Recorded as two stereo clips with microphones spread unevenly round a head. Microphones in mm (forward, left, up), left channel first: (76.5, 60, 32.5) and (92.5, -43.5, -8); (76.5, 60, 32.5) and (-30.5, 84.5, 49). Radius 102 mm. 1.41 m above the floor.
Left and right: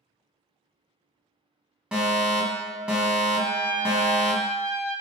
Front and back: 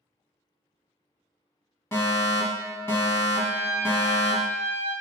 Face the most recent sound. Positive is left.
turn(degrees=150)